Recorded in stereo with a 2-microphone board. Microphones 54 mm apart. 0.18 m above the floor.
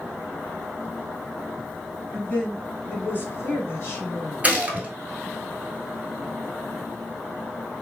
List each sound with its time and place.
2.1 s a woman speaking: 20° left (ahead or behind), 1.3 m; by 4.3 s 55° left (ahead or behind), 1.9 m
4.4 s a gunshot: 30° right (ahead or behind), 0.9 m